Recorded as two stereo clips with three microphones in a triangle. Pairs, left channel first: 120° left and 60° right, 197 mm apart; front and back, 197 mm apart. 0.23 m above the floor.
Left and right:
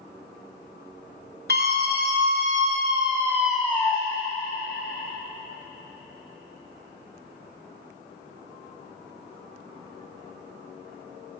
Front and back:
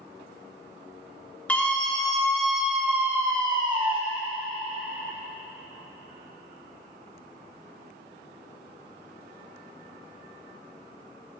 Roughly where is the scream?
Right.